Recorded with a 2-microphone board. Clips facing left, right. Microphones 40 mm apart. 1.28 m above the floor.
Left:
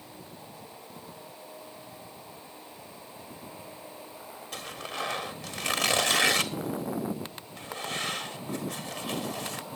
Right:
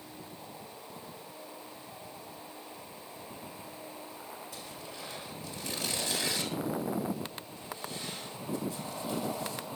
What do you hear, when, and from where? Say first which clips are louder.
4.5 s tearing paper: left 7 dB; 70° left (ahead or behind), 1.6 m